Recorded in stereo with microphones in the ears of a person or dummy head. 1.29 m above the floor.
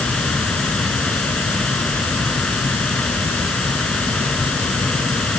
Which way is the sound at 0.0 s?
Centre (ahead or behind).